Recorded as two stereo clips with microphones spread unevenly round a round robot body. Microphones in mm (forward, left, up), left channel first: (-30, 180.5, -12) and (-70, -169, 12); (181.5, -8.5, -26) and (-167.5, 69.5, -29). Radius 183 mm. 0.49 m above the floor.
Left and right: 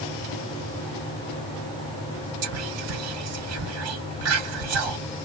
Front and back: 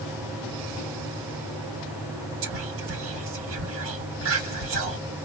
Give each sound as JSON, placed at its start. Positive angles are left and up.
{"t": 2.4, "sound": "whispering", "azimuth_deg": -140, "distance_m": 1.6}